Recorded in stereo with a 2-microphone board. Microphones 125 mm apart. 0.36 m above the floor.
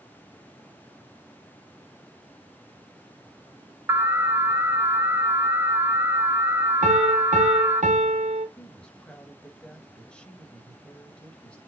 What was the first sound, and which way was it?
An alarm, 15° right (ahead or behind).